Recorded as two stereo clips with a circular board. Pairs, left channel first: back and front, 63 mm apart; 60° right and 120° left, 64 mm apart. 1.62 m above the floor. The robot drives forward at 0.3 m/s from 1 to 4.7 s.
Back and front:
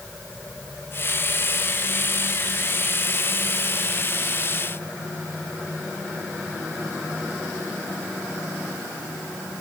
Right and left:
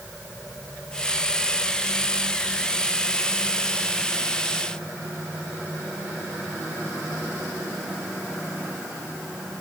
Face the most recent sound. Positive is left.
No sound to turn to.